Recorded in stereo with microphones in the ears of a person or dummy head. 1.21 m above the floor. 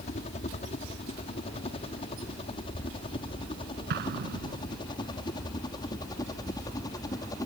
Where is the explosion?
55° right (ahead or behind).